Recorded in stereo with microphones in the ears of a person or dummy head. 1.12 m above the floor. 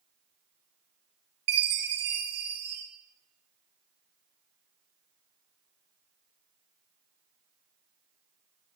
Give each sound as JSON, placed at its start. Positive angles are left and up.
{"t": 1.5, "sound": "a chime", "side_deg": -55, "distance_m": 2.5}